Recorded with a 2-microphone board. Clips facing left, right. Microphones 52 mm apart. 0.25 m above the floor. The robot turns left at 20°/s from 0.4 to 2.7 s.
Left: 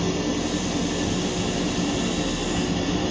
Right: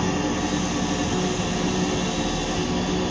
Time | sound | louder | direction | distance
0.0 | an engine running | right 1 dB | 135° right | 1.7 m